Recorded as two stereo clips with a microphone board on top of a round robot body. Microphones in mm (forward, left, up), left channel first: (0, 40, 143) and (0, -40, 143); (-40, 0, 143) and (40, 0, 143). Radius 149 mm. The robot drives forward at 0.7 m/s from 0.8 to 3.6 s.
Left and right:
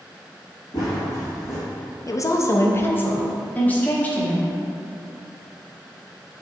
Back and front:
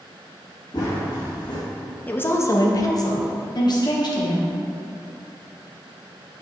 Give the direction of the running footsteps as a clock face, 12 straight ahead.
8 o'clock.